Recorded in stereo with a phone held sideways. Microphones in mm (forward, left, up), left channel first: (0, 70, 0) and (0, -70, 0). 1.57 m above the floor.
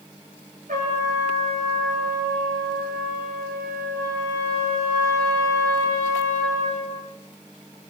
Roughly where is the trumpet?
Right.